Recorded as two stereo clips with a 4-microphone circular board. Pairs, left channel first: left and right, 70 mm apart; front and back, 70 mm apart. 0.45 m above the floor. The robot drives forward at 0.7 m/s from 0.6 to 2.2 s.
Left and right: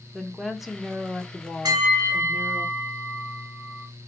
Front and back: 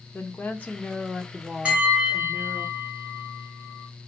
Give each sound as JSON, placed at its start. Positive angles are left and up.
{"t": 0.1, "sound": "a woman speaking", "azimuth_deg": -10, "distance_m": 1.1}
{"t": 1.6, "sound": "a bell", "azimuth_deg": -110, "distance_m": 1.9}